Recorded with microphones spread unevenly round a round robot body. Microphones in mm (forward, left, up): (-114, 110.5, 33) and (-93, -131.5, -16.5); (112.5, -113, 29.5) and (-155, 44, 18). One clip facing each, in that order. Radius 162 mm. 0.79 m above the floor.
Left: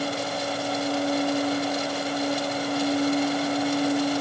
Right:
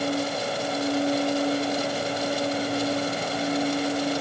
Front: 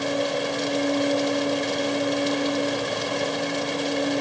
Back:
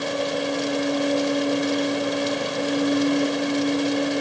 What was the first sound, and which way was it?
Only background noise.